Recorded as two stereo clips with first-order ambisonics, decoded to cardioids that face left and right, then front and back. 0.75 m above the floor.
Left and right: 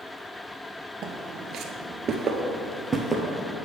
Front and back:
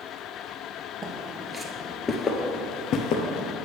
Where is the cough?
I don't hear a cough.